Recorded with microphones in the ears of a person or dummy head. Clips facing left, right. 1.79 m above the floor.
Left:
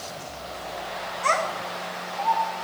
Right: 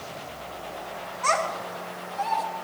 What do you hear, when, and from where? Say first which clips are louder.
1.2 s a child speaking: even; 30° left (ahead or behind), 1.5 m; by 2.5 s 40° right (ahead or behind), 1.0 m